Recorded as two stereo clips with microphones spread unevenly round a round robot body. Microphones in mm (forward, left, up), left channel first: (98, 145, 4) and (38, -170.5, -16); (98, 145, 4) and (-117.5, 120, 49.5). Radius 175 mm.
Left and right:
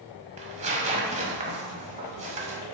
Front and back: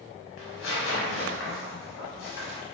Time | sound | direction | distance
0.4 | tearing paper | 30° right | 0.7 m